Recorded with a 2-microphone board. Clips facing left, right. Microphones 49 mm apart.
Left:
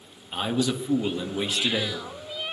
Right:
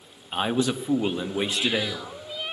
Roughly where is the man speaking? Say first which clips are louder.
Right 1 dB; right.